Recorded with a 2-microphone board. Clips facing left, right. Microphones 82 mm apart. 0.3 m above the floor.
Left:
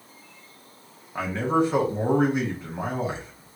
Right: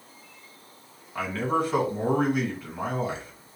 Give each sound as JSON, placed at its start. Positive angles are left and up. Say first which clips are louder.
{"t": 1.1, "sound": "a man speaking", "louder": "left 3 dB", "side_deg": 25, "distance_m": 1.5}